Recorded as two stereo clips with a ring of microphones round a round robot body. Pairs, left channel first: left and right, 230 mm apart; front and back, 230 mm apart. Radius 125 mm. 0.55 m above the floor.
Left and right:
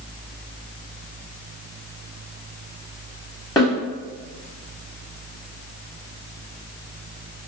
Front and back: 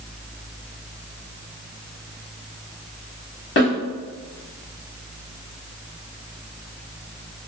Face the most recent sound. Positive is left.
turn(degrees=20)